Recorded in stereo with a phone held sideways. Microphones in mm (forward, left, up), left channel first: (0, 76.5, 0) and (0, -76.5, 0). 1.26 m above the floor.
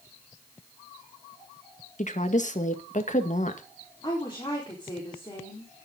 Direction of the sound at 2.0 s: 55° left (ahead or behind).